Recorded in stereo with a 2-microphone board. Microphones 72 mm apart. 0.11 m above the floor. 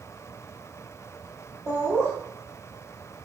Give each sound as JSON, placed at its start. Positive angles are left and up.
{"t": 1.7, "sound": "laughter", "side_deg": -40, "distance_m": 1.9}